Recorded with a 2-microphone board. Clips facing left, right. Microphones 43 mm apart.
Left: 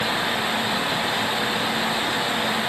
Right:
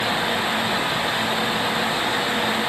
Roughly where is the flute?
No flute in this recording.